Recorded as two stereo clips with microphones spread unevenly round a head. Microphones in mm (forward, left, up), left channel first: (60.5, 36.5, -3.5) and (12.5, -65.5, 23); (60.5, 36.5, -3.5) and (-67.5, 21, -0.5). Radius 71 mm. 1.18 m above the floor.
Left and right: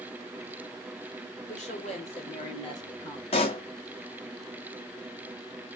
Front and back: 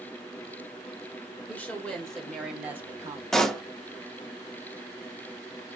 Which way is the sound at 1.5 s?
85° left.